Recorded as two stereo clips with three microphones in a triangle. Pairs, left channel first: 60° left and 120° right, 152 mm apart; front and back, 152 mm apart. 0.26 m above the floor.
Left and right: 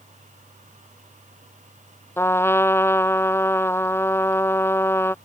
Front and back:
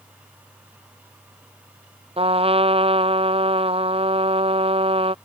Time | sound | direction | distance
2.2 | a trumpet | 135° left | ?